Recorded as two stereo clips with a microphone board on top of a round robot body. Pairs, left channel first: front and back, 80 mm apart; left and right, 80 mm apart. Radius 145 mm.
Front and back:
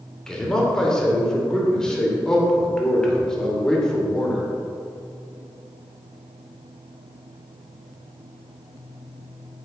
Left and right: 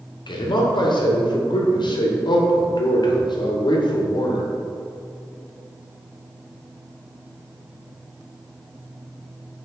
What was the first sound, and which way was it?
A man speaking, 85° left.